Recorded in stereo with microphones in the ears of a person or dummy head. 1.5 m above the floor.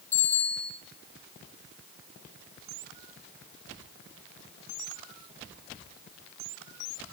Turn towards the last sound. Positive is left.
turn(degrees=15)  # may be behind; listen again after turning